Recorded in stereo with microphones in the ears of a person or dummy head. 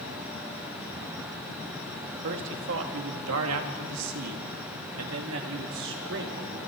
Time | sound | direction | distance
2.2 | a man speaking | 65° right (ahead or behind) | 2.5 m